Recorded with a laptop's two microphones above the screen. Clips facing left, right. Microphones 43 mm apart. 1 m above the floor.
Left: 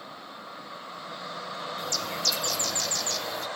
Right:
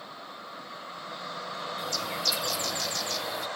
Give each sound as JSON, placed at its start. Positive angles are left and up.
{"t": 1.8, "sound": "a bird", "side_deg": -5, "distance_m": 0.6}